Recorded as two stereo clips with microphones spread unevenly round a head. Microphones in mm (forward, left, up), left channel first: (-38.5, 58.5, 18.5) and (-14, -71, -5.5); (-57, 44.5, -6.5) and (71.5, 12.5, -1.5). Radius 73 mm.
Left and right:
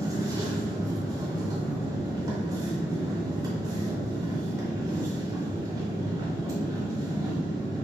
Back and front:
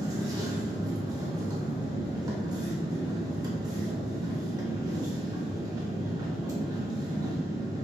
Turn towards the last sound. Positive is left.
turn(degrees=-20)